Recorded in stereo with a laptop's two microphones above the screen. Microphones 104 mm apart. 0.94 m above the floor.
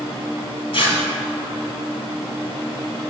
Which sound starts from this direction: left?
Tearing paper, at 0.7 s.